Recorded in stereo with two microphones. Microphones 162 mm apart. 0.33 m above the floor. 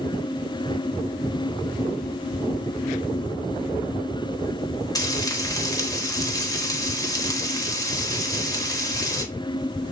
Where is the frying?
20° left (ahead or behind), 1.0 m.